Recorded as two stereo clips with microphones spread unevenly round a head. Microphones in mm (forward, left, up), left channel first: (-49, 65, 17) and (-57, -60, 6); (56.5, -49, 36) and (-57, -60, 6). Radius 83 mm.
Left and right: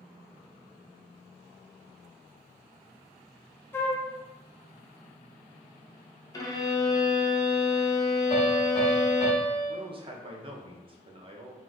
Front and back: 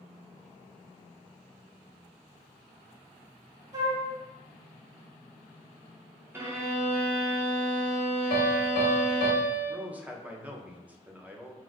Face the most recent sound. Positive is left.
turn(degrees=-115)